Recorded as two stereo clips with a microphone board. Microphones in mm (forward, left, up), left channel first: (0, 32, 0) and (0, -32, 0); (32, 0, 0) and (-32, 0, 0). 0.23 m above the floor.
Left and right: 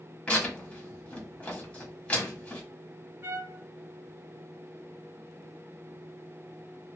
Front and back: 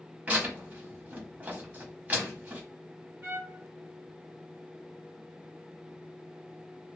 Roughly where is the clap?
No clap in this recording.